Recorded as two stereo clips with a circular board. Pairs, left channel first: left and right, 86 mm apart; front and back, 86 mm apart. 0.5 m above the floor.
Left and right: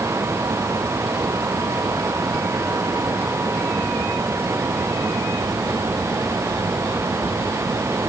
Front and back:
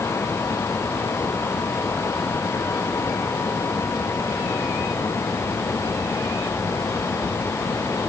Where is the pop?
I don't hear a pop.